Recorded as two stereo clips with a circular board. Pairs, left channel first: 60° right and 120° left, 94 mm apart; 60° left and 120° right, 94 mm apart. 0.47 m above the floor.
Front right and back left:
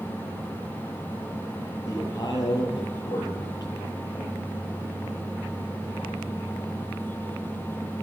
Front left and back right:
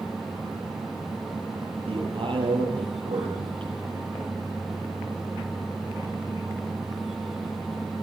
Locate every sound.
1.9 s a man speaking: 110° right, 9.5 m